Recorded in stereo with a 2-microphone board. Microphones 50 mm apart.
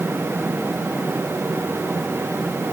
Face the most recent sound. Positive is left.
No sound to turn to.